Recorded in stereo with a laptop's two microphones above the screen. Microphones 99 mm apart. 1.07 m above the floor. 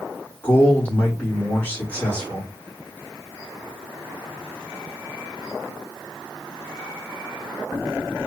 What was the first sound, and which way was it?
A man speaking, 20° left (ahead or behind).